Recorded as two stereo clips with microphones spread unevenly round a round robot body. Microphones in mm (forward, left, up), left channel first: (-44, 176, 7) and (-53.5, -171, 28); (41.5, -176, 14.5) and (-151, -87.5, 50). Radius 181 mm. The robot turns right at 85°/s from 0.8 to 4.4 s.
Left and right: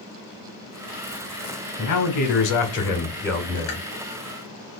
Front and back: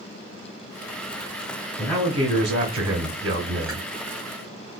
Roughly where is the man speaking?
Ahead left.